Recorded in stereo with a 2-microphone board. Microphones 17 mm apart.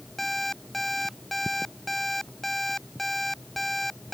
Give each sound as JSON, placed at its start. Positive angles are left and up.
{"t": 0.2, "sound": "an alarm clock", "side_deg": 10}